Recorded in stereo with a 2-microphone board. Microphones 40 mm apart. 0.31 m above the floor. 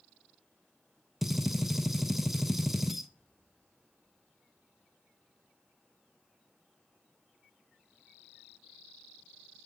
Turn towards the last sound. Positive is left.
turn(degrees=-10)  # may be behind; listen again after turning